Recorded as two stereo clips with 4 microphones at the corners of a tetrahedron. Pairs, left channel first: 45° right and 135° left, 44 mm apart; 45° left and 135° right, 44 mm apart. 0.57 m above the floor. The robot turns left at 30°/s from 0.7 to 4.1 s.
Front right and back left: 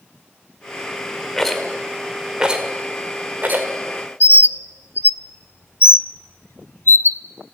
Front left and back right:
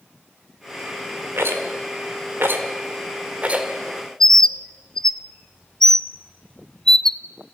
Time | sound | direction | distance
1.4 | a rattle | 125° right | 2.0 m
4.2 | a bird | 35° right | 0.5 m